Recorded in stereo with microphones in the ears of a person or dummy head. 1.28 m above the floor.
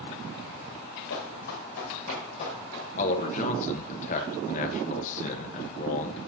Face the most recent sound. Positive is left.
turn(degrees=40)  # may be behind; listen again after turning